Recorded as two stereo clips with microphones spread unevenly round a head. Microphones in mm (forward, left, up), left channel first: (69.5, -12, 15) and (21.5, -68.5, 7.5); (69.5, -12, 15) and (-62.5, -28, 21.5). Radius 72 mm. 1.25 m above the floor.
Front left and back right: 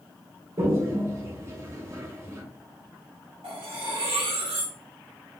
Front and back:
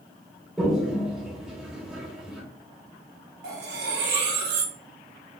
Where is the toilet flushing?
90° right, 0.9 m.